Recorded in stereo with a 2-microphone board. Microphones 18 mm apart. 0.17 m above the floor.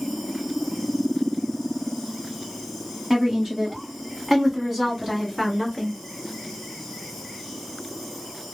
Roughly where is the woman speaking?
Right.